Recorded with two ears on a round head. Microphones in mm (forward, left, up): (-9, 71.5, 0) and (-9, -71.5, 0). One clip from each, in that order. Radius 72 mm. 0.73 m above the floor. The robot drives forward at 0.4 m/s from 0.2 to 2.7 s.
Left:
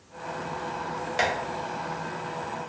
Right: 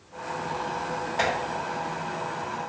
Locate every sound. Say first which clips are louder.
1.2 s tapping: even; 50° left (ahead or behind), 1.3 m